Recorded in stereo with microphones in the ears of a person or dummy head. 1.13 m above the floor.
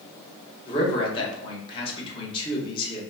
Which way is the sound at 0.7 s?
25° left (ahead or behind).